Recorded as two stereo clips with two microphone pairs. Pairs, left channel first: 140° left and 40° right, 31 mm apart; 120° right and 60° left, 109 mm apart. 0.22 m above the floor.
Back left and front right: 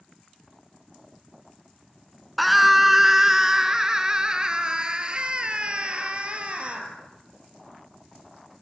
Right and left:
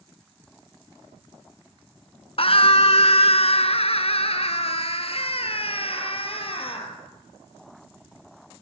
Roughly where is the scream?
Behind right.